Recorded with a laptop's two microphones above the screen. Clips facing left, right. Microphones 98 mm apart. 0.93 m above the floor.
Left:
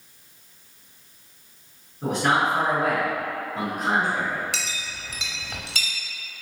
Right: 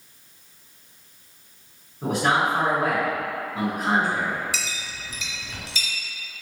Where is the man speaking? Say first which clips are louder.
Even; 10° right (ahead or behind), 1.6 m.